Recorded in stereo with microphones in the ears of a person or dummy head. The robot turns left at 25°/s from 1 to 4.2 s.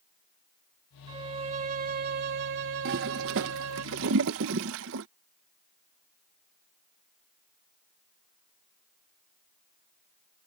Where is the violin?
25° right; by 3.9 s 95° right.